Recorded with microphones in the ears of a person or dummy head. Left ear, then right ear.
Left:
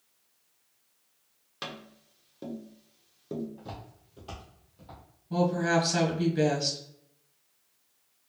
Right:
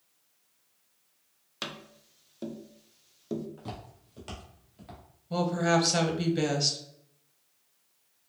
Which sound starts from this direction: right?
Footsteps, at 3.6 s.